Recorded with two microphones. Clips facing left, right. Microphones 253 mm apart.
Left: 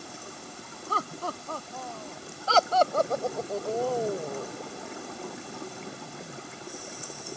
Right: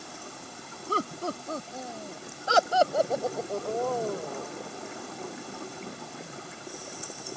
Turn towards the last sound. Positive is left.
turn(degrees=25)  # may be behind; listen again after turning